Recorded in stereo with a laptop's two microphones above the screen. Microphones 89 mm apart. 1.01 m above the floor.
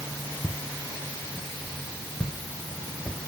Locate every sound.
0.4 s footsteps: 5° left (ahead or behind), 3.5 m; by 3.2 s 20° left (ahead or behind), 6 m